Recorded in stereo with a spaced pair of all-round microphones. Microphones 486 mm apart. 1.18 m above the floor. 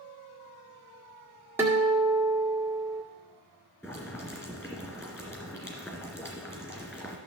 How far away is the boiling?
About 2.5 m.